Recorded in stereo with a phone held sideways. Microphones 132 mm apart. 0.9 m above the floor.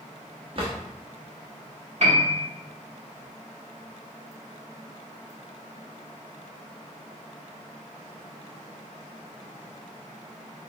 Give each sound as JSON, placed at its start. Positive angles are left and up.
{"t": 0.6, "sound": "a drawer", "side_deg": -45, "distance_m": 0.9}
{"t": 2.0, "sound": "a piano", "side_deg": -55, "distance_m": 1.2}